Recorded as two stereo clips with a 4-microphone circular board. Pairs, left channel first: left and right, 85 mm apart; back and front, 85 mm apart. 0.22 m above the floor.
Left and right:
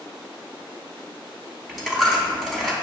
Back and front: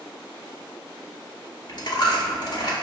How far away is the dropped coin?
About 0.7 m.